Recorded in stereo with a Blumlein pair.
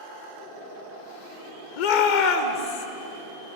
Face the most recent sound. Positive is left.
turn(degrees=55)